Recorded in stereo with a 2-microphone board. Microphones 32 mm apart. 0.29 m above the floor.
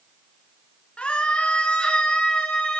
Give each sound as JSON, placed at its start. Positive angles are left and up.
{"t": 1.0, "sound": "a scream", "side_deg": 35, "distance_m": 3.0}